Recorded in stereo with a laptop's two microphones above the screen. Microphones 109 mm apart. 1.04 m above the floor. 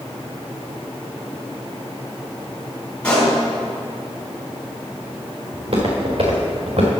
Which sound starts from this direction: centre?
A pop, at 3.0 s.